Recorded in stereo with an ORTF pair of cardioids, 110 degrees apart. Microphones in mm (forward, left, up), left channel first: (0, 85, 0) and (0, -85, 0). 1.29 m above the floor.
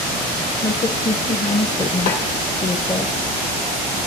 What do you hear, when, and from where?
0.6 s a woman speaking: 25° left, 0.8 m
2.1 s a snare drum: 65° left, 2 m